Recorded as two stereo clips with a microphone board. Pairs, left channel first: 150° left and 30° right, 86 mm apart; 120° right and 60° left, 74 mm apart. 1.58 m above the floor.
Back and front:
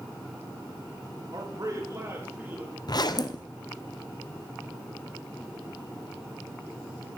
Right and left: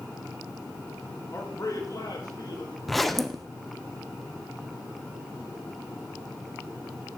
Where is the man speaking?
70° right, 1.6 m; by 2.8 s 100° right, 2.5 m.